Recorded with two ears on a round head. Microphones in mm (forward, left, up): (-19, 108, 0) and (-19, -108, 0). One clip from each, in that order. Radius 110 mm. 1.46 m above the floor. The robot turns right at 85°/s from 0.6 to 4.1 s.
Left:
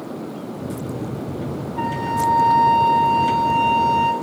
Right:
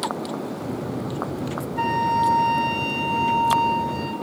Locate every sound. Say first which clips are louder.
1.8 s a flute: right 2 dB; 145° right, 4.5 m; by 4.1 s 55° left, 4.5 m